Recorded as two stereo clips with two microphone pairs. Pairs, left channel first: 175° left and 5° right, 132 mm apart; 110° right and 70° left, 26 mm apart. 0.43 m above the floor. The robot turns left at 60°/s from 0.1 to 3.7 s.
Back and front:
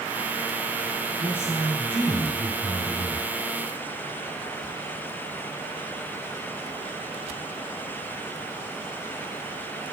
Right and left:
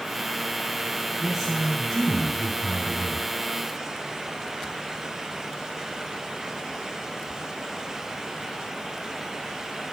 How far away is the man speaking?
About 2.5 m.